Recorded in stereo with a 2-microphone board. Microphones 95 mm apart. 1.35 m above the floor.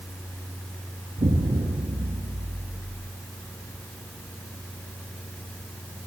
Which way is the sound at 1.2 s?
70° right (ahead or behind).